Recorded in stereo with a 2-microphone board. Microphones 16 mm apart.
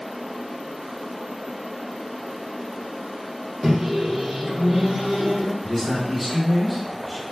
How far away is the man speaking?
About 1.1 m.